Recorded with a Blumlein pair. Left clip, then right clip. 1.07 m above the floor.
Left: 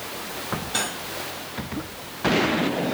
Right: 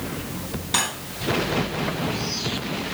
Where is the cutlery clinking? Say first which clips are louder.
Right 5 dB; 40° right, 3 m.